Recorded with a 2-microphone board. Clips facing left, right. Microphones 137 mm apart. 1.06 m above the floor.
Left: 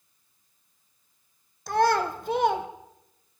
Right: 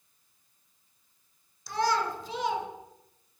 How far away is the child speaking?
About 0.6 m.